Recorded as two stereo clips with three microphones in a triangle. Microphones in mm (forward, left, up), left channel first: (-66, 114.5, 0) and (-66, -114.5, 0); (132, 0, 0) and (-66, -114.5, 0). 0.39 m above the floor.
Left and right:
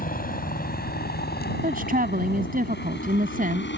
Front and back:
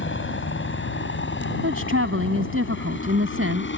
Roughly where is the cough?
No cough in this recording.